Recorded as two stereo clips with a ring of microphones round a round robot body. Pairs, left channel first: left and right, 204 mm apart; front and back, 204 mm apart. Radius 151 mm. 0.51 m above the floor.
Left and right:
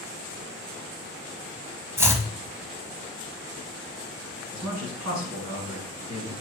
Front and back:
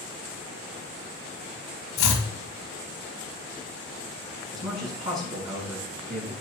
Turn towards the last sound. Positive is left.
turn(degrees=-120)